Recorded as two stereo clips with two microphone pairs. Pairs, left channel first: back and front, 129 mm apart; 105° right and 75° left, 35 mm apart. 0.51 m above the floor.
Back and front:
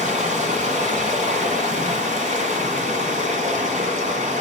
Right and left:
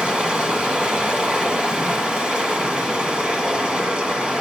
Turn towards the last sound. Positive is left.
turn(degrees=10)